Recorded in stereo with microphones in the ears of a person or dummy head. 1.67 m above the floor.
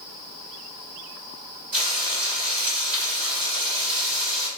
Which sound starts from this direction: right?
Frying, at 1.7 s.